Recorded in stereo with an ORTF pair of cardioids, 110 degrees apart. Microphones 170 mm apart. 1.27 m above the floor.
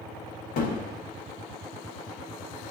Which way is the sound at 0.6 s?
60° left.